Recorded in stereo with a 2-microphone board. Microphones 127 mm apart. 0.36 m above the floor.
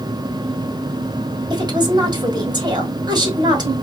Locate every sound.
1.5 s a woman speaking: 35° right (ahead or behind), 1.3 m